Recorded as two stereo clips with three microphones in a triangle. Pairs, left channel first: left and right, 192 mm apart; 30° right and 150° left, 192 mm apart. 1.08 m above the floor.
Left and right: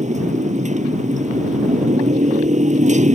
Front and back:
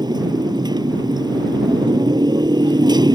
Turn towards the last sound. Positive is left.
turn(degrees=-140)